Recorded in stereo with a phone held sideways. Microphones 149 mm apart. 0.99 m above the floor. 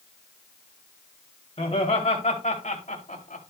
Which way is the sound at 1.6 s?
45° left (ahead or behind).